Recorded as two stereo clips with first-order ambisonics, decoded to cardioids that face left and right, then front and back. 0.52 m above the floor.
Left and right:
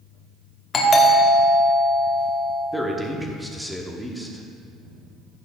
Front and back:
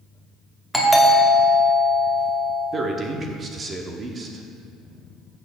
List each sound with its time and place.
0.7 s a doorbell: 85° left, 1.2 m
2.7 s a man speaking: 175° right, 0.8 m